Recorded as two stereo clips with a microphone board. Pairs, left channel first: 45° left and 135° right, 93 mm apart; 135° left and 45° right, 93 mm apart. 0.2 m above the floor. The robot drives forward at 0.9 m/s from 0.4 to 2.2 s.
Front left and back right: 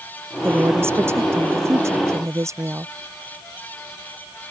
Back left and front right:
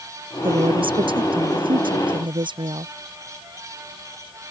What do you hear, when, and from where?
0.4 s a woman speaking: 70° right; by 2.9 s 75° right